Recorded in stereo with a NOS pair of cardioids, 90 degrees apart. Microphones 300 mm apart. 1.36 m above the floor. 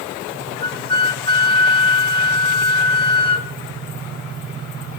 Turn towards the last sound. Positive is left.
turn(degrees=20)